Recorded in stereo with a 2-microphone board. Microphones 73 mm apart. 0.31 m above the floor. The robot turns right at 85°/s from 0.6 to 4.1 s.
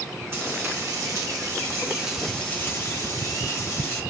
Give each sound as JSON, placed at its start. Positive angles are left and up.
{"t": 0.3, "sound": "frying", "azimuth_deg": -140, "distance_m": 2.0}